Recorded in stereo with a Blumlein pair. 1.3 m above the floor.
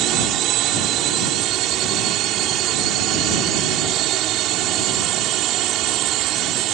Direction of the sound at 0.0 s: 35° right.